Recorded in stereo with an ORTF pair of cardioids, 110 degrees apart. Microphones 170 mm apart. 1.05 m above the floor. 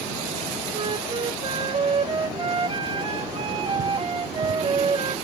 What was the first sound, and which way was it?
A flute, 30° right.